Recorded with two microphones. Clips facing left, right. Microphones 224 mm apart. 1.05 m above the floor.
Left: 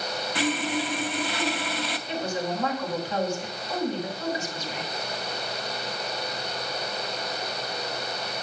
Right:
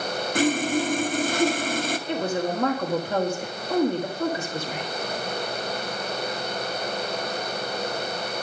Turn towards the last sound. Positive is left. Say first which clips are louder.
# right 3 dB
turn(degrees=-55)  # may be behind; listen again after turning